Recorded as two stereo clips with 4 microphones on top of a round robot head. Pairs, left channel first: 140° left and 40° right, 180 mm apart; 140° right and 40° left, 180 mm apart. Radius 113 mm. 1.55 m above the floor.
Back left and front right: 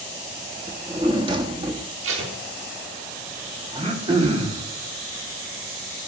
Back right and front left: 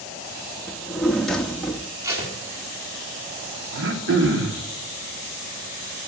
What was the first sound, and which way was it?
A drawer, 55° right.